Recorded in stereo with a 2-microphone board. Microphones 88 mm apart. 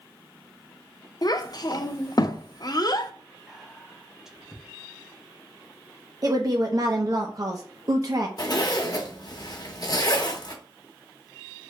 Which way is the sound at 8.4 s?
50° left (ahead or behind).